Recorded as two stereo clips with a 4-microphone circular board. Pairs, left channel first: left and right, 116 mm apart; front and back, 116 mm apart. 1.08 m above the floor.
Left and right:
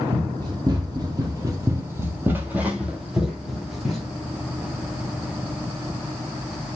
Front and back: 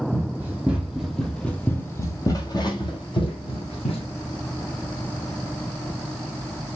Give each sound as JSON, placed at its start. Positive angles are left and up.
{"t": 0.1, "sound": "running footsteps", "azimuth_deg": -120, "distance_m": 1.5}